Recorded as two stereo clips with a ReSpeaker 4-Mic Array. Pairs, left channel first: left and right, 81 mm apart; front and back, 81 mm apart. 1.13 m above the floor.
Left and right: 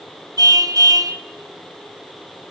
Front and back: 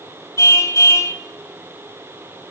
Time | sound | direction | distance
0.4 | a car horn | 55° right | 2.5 m